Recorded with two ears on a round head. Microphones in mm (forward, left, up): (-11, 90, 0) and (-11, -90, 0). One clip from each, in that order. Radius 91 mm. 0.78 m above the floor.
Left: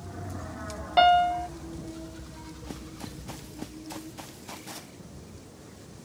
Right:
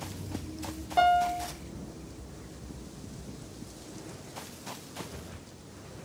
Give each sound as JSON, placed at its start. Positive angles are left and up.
{"t": 1.0, "sound": "a piano", "side_deg": 70}